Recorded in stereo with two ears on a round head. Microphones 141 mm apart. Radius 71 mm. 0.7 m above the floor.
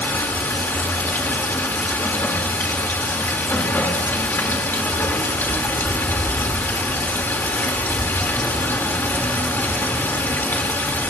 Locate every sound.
0.0 s running water: 15° left (ahead or behind), 2 m